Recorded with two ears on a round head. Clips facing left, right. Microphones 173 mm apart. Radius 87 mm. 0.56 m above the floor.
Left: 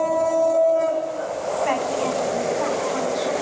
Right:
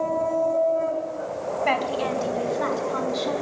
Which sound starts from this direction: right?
A woman speaking, at 1.6 s.